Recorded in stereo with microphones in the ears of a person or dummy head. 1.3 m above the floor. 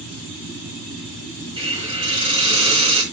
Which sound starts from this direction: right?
A hiss, at 1.6 s.